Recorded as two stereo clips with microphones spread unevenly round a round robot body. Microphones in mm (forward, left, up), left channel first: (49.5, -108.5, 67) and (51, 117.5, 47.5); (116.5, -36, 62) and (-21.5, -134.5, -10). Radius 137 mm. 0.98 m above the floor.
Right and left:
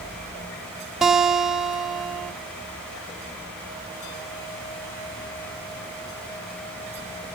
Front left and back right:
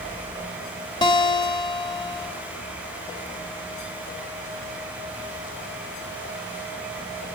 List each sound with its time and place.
1.0 s a guitar: straight ahead, 1.0 m